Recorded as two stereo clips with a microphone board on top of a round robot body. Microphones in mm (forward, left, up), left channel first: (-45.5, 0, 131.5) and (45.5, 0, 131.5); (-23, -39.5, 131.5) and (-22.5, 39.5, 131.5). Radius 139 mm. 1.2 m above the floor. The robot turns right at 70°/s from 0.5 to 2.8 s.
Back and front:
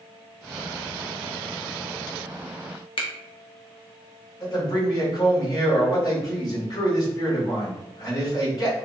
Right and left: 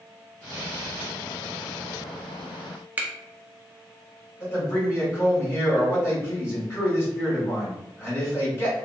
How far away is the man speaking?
About 1.7 m.